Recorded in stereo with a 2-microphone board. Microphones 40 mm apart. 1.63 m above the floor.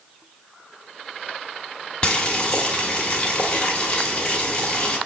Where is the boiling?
30° left (ahead or behind), 1.4 m.